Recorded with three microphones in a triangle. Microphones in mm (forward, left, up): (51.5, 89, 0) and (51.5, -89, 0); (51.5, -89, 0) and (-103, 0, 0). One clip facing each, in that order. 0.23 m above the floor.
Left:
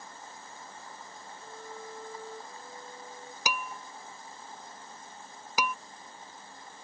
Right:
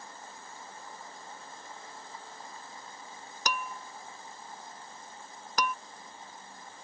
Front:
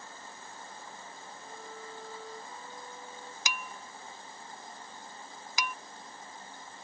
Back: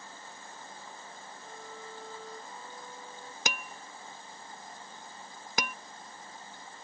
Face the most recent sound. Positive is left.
turn(degrees=170)